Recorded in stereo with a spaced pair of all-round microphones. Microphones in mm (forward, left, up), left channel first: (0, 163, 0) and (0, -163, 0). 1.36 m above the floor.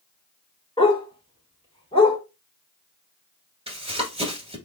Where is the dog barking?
15° left (ahead or behind), 1.4 m.